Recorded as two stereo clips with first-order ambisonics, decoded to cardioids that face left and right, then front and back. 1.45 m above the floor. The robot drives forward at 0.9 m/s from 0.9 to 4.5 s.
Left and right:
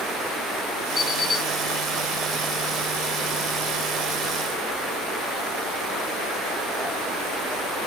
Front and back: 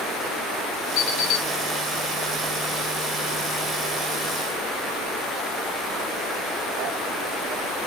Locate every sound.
1.0 s an alarm clock: 10° left, 2.5 m